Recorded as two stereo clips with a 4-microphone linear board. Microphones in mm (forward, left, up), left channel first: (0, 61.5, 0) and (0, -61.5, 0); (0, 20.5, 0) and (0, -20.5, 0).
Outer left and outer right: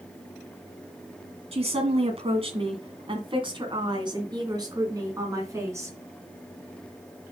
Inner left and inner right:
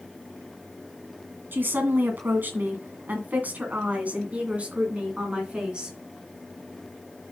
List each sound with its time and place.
1.5 s a woman speaking: 55° right (ahead or behind), 2 m; by 6.0 s 20° right (ahead or behind), 2.5 m